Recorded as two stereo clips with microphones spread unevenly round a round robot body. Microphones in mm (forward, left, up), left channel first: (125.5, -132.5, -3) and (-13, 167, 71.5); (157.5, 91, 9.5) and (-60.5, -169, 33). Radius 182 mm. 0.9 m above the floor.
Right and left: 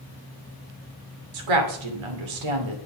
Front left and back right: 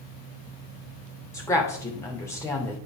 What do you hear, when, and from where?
1.3 s a woman speaking: 135° left, 3 m